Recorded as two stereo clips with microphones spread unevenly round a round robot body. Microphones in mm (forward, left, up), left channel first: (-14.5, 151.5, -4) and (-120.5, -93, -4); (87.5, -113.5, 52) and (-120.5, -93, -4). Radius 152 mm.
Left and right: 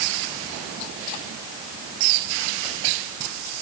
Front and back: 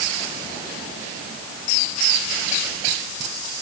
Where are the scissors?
No scissors in this recording.